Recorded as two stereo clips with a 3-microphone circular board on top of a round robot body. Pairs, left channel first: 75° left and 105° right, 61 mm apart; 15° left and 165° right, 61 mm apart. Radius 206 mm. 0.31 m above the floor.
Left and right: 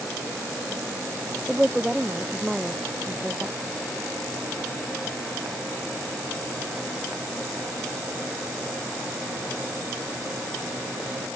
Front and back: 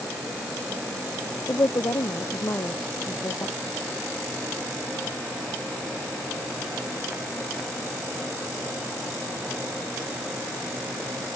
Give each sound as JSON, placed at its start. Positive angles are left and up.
{"t": 1.5, "sound": "a woman speaking", "azimuth_deg": -20}